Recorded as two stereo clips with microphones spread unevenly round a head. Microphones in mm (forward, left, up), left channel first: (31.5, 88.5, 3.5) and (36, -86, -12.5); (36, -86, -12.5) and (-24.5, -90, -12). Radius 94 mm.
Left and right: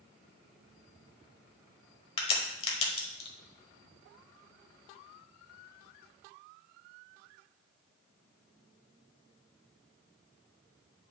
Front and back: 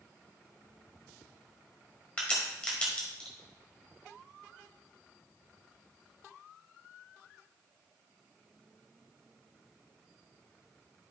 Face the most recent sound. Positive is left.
turn(degrees=70)